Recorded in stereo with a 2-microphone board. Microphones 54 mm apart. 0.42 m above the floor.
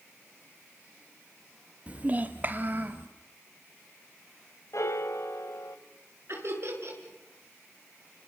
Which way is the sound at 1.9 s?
25° right (ahead or behind).